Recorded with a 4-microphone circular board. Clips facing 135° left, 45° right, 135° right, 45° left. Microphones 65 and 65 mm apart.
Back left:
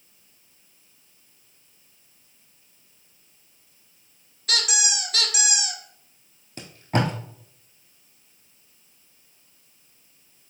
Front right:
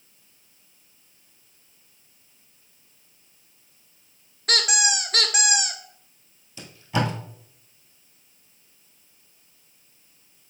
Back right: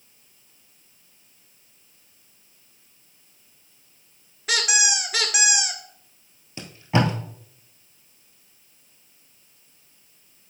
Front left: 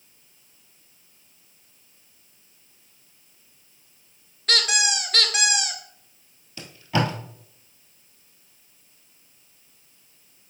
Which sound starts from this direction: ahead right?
A squeak, at 4.5 s.